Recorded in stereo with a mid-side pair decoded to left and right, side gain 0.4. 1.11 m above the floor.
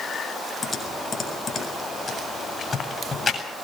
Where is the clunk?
No clunk in this recording.